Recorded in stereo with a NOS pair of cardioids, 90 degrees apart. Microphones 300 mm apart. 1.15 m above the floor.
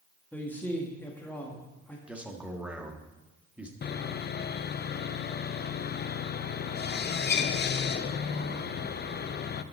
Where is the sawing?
35° left, 0.6 m.